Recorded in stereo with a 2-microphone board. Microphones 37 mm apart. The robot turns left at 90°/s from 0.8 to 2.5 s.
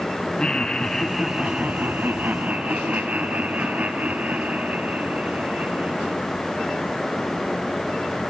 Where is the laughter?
25° left, 2 m; by 6.2 s 130° right, 2 m.